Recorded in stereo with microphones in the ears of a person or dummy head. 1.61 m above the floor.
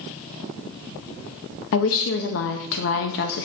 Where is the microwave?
No microwave in this recording.